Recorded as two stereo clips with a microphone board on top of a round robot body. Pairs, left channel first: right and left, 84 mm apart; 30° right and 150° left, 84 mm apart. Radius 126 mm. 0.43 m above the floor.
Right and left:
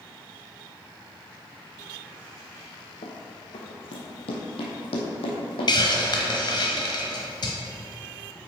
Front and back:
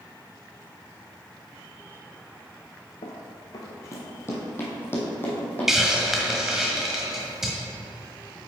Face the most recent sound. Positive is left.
turn(degrees=-125)